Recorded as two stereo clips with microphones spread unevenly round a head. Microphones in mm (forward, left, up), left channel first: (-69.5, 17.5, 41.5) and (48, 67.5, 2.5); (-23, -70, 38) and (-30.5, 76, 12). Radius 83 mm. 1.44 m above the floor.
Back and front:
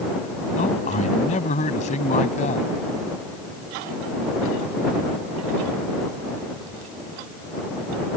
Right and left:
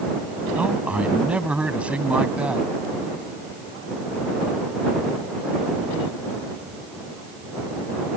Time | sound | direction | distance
0.6 | a man speaking | 175° left | ?